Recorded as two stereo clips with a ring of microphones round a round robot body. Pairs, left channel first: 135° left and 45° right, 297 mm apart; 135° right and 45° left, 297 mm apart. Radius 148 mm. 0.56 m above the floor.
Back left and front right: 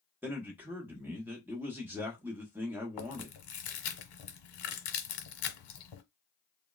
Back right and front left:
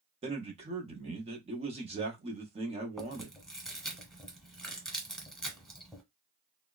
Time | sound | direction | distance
0.2 | a man speaking | 25° left | 0.7 m
3.0 | chewing | 135° left | 0.9 m